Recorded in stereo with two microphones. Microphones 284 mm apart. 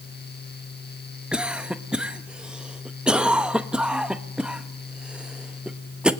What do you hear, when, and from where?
1.3 s a cough: 5° right (ahead or behind), 1.3 m